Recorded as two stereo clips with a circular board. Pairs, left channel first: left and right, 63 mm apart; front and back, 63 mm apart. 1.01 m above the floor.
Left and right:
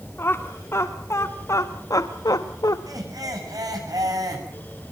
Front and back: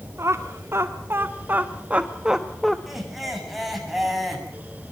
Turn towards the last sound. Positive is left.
turn(degrees=-95)